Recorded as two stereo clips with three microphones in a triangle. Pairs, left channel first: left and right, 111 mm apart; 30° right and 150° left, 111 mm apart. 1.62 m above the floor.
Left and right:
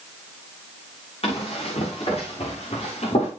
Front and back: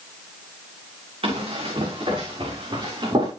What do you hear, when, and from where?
1.2 s running footsteps: 120° left, 6 m; by 3.3 s 105° left, 7 m